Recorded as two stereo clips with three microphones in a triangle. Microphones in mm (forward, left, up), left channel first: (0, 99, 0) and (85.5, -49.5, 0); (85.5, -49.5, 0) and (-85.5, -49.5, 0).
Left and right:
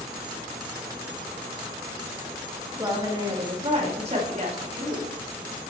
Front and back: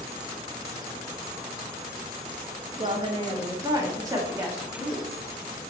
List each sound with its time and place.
2.8 s a woman speaking: 130° right, 1.8 m; by 5.1 s 100° right, 3.5 m